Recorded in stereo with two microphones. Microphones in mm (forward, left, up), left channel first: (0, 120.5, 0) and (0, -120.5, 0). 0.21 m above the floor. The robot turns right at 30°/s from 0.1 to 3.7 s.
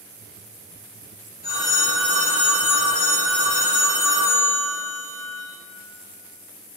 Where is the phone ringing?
50° left, 1.0 m; by 5.4 s 120° left, 1.0 m.